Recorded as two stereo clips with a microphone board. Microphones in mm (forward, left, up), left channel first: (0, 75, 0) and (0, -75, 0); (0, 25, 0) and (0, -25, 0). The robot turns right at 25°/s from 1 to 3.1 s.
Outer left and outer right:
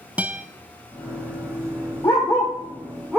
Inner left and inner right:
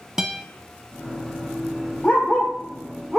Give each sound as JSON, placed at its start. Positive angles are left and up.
{"t": 0.2, "sound": "a guitar", "side_deg": -10, "distance_m": 0.5}
{"t": 2.0, "sound": "a dog barking", "side_deg": 30, "distance_m": 2.0}